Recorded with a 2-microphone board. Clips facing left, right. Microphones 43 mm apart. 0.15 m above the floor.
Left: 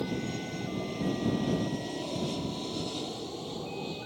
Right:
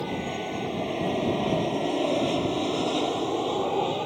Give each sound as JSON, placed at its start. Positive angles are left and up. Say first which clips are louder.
{"t": 0.0, "sound": "an aircraft", "louder": "right 4 dB", "side_deg": -40}